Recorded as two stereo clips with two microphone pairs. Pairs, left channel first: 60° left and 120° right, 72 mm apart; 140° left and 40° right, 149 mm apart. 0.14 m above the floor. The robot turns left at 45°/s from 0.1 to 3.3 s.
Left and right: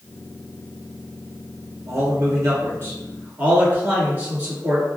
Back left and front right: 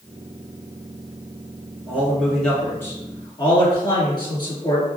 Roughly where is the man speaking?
Right.